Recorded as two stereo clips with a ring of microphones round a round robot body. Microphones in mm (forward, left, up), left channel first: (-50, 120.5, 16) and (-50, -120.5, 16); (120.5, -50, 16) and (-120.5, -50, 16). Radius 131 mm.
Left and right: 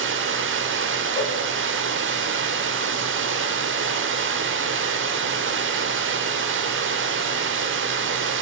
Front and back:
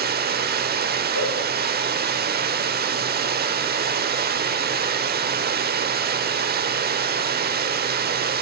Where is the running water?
130° right, 0.9 m.